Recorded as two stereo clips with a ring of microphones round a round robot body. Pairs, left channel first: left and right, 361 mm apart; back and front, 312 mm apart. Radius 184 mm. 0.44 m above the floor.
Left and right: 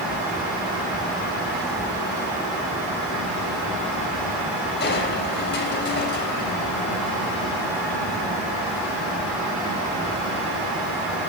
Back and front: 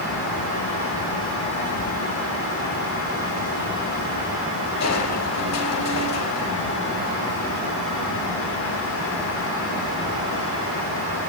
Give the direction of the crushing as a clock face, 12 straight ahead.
7 o'clock.